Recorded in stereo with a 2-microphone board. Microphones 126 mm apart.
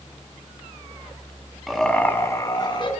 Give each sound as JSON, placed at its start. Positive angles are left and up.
{"t": 1.7, "sound": "laughter", "side_deg": 0, "distance_m": 1.1}